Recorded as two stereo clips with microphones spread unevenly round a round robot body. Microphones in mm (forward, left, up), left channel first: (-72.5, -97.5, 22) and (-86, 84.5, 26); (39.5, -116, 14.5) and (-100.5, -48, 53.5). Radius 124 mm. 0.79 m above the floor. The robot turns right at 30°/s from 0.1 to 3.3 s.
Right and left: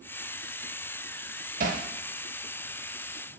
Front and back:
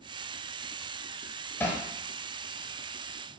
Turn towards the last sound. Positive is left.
turn(degrees=120)